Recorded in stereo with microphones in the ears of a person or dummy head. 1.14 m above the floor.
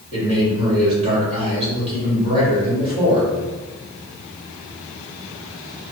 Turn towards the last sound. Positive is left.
turn(degrees=-35)  # may be behind; listen again after turning